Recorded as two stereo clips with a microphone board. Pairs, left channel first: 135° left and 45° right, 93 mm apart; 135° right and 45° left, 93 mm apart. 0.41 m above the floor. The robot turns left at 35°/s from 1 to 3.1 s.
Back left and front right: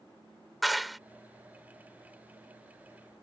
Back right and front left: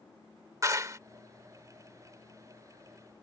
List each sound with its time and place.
0.6 s a clap: 45° left